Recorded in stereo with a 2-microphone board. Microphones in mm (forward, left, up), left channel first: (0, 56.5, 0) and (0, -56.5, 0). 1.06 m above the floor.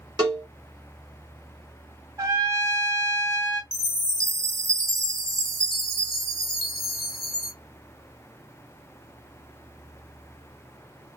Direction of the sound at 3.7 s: 5° left (ahead or behind).